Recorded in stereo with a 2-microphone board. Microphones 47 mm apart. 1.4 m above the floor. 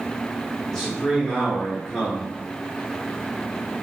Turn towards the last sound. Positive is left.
turn(degrees=10)  # may be behind; listen again after turning